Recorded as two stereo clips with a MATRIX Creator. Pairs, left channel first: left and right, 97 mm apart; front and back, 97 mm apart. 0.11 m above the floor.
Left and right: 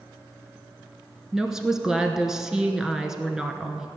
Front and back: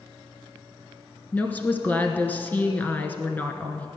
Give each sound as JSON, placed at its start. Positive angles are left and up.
{"t": 1.3, "sound": "a woman speaking", "azimuth_deg": -15, "distance_m": 1.1}